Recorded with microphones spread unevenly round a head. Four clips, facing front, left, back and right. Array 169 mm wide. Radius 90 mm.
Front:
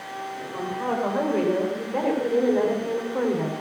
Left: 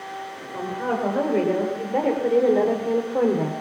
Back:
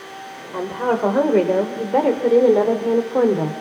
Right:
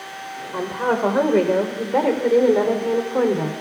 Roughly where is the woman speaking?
Behind.